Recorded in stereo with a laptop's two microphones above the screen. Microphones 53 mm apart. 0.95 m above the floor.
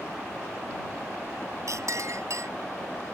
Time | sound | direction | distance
1.7 | a clink | 65° right (ahead or behind) | ?